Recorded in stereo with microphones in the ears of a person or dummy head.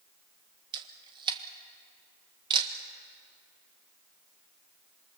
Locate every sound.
0.7 s a camera shutter: 25° right (ahead or behind), 1.6 m